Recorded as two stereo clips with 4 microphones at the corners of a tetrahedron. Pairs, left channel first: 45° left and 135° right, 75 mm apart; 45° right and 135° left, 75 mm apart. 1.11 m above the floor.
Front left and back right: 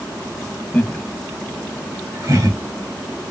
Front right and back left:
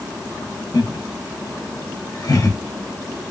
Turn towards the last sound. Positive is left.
turn(degrees=-90)